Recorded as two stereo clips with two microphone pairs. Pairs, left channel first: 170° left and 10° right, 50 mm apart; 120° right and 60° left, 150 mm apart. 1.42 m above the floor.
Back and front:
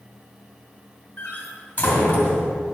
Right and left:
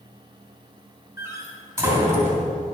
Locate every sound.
1.2 s a door slam: 130° left, 2 m